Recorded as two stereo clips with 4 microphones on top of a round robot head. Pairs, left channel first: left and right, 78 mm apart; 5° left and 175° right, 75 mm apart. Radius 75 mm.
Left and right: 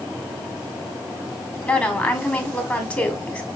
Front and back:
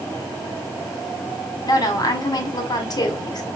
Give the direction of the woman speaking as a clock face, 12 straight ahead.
11 o'clock.